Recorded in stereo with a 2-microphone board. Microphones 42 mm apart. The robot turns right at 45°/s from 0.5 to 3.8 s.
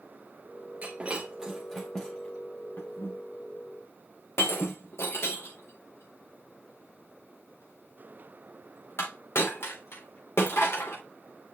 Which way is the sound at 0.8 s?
35° right (ahead or behind).